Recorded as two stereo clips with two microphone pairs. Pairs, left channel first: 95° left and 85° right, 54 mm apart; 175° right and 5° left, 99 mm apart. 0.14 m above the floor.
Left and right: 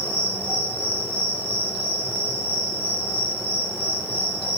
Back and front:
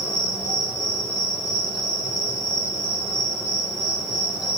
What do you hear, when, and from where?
0.0 s an insect: 110° right, 1.8 m